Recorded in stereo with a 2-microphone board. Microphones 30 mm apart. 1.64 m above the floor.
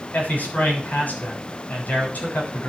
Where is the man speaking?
85° left, 6 m.